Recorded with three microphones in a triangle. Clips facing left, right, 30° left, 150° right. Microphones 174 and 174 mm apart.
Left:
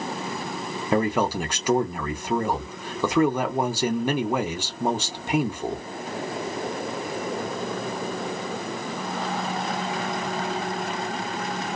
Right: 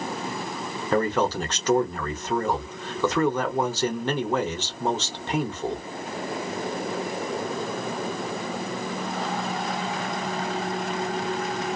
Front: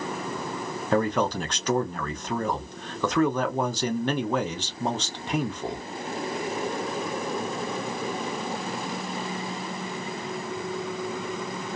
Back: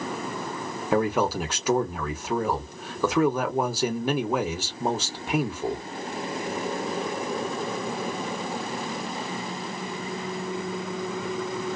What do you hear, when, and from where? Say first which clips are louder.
0.9 s a man speaking: even, back 1 dB; 145° left, 0.8 m